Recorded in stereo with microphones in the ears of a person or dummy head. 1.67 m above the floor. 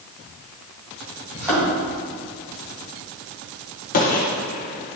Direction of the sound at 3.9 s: 45° left (ahead or behind).